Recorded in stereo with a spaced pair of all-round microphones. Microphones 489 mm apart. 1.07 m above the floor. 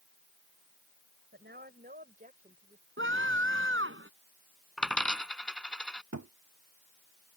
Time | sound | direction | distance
1.3 | a woman speaking | 20° right (ahead or behind) | ?
3.0 | a scream | 25° right (ahead or behind) | ?
4.8 | a dropped coin | centre (ahead or behind) | ?
6.1 | a thud | 35° right (ahead or behind) | ?